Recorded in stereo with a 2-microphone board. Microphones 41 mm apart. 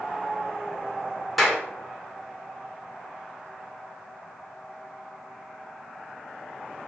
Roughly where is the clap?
Centre.